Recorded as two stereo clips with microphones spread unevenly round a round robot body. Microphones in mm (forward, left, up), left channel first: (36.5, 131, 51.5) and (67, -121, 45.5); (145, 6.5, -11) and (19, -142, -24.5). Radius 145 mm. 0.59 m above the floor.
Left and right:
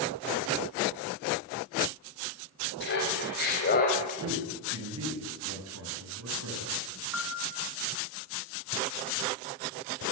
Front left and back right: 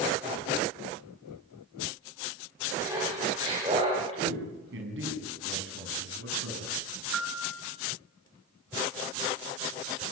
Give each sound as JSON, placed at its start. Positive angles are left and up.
{"t": 2.8, "sound": "laughter", "azimuth_deg": 150, "distance_m": 4.0}
{"t": 4.2, "sound": "a man speaking", "azimuth_deg": -120, "distance_m": 5.5}
{"t": 7.1, "sound": "a piano", "azimuth_deg": -170, "distance_m": 4.5}